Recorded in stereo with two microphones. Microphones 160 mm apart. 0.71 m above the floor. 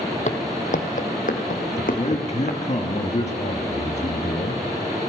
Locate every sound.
0.3 s footsteps: 50° left (ahead or behind), 1.4 m; by 2.6 s 60° left (ahead or behind), 2.5 m
1.8 s a man speaking: 45° left (ahead or behind), 1.4 m